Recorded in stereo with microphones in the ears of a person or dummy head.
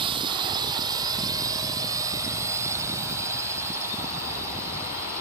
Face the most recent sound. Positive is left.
turn(degrees=-20)  # may be behind; listen again after turning